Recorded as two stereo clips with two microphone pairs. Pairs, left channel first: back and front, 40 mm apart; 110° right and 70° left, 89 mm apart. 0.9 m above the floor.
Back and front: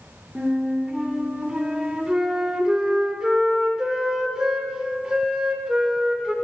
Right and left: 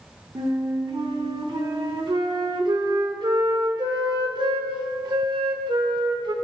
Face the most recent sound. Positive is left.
turn(degrees=70)